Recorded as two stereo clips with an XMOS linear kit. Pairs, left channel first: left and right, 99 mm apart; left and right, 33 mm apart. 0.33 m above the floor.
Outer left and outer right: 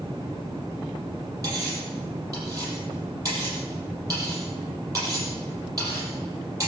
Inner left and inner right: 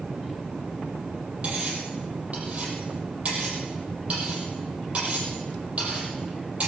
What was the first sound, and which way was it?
Cutlery clinking, 35° right (ahead or behind).